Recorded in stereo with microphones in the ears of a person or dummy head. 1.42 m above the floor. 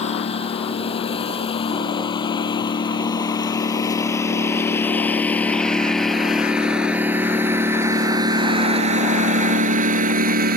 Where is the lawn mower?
25° left (ahead or behind); by 10.6 s 50° right (ahead or behind).